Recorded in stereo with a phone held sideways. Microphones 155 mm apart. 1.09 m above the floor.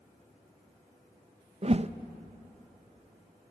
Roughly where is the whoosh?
Right.